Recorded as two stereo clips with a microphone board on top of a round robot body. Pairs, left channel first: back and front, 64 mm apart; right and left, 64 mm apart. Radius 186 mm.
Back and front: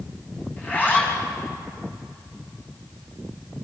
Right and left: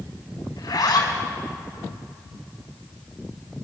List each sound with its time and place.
0.6 s a zipper: 115° right, 4 m